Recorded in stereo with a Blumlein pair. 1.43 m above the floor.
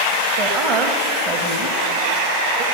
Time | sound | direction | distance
0.4 | a woman speaking | 35° right | 1.1 m